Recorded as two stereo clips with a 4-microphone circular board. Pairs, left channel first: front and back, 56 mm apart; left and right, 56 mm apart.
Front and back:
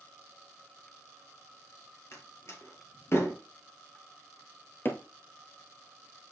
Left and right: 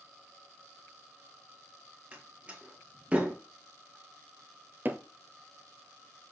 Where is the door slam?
30° right, 2 m.